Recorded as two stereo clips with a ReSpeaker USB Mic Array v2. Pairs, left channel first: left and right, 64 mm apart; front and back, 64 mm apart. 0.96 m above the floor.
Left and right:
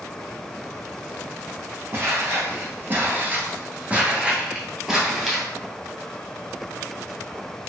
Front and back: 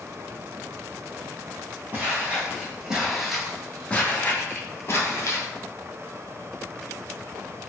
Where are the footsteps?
130° right, 1.3 m; by 5.5 s straight ahead, 1.4 m.